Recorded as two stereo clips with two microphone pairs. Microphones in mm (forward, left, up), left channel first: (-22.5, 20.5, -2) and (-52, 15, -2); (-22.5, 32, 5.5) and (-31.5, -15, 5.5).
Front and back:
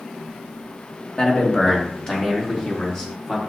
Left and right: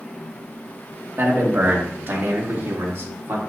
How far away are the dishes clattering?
I don't hear dishes clattering.